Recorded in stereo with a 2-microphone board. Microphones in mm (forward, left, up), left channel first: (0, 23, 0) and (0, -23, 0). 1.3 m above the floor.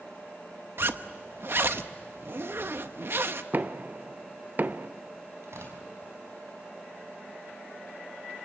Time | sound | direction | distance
0.8 | a zipper | 55° right (ahead or behind) | 0.9 m
3.5 | knocking | 40° right (ahead or behind) | 0.7 m
5.4 | tearing paper | 70° right (ahead or behind) | 6 m